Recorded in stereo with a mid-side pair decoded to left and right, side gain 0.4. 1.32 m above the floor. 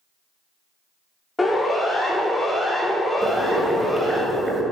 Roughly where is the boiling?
Ahead.